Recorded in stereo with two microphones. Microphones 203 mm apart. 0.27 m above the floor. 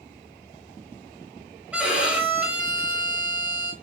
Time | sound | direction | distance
1.7 | a violin | 5° right (ahead or behind) | 1.1 m